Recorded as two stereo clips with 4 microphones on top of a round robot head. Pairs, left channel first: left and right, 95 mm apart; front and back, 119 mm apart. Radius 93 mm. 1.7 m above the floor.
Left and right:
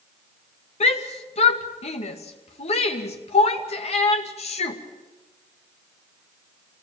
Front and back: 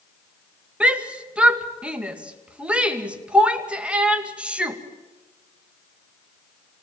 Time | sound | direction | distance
0.8 | a shout | 95° left | 2.5 m